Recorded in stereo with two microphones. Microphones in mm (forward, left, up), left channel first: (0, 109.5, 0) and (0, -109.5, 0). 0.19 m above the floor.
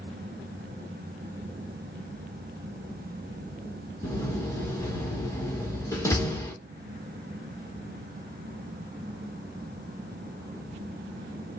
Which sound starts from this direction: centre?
A door slam, at 4.0 s.